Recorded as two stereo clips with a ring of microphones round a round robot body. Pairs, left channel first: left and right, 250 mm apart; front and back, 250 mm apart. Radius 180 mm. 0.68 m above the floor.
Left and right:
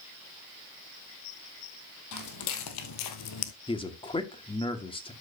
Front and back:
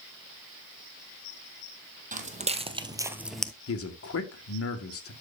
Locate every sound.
2.1 s footsteps: 120° left, 1.9 m; by 3.5 s 85° left, 1.1 m
3.7 s a man speaking: 20° left, 2 m